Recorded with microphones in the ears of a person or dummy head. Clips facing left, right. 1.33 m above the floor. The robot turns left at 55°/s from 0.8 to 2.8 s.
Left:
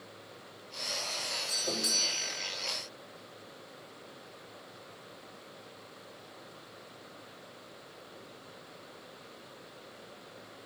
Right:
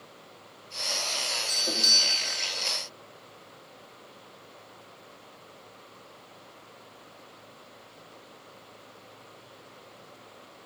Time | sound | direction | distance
1.5 | a doorbell | 20° right | 3 m